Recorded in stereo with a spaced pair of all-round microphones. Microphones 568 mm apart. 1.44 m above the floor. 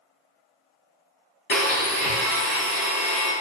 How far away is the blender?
About 0.8 m.